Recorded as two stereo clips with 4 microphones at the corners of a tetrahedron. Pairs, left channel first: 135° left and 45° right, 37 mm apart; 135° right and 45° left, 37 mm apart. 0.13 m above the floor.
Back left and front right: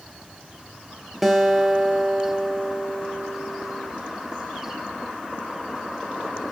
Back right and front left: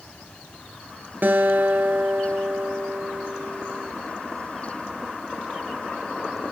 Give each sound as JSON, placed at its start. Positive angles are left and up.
{"t": 1.2, "sound": "a guitar", "azimuth_deg": 40, "distance_m": 2.0}